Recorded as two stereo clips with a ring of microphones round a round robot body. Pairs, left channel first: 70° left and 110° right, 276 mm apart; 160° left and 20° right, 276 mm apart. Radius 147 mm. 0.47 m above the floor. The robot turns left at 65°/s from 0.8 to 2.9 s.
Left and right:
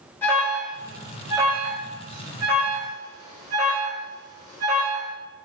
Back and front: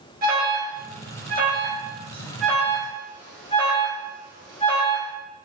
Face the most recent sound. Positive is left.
turn(degrees=-145)